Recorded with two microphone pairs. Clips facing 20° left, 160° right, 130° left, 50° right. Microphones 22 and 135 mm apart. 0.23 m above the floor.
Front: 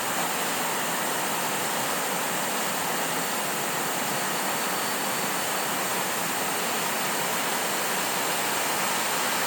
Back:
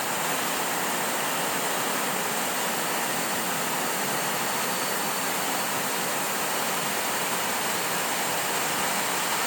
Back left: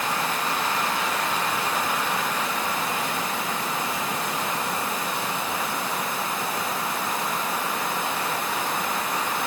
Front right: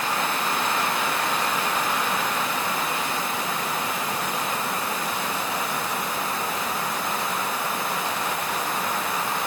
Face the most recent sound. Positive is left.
No sound to turn to.